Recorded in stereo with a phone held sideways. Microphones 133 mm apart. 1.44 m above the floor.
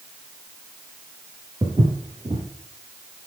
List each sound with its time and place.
1.6 s footsteps: 30° right (ahead or behind), 1.7 m